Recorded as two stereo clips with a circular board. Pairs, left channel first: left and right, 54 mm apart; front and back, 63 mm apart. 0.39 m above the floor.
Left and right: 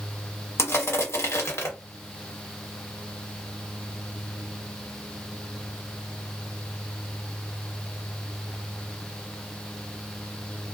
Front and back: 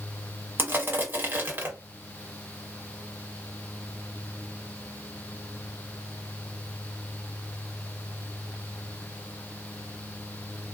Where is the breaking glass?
I don't hear breaking glass.